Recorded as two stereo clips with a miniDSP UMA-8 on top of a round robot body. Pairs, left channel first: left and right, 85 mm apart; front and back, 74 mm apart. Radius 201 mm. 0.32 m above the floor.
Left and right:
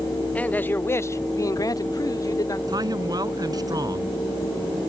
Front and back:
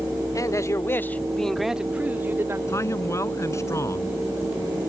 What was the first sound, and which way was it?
A man speaking, 20° left.